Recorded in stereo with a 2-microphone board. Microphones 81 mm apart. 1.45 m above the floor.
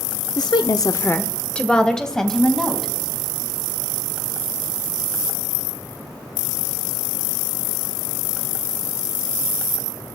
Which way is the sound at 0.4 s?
50° left (ahead or behind).